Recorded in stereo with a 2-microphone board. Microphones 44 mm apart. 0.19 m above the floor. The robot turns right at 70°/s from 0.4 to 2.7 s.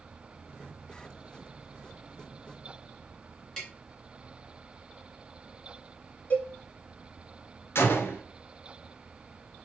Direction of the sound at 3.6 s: 15° left (ahead or behind).